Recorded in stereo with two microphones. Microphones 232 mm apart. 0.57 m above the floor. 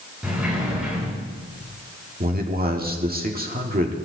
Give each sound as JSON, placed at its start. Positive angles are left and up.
{"t": 0.2, "sound": "a sliding door", "side_deg": -5, "distance_m": 7.5}
{"t": 2.2, "sound": "a man speaking", "side_deg": -40, "distance_m": 1.5}